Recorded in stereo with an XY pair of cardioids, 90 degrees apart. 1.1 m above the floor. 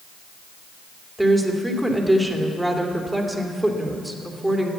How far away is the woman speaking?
About 2.5 m.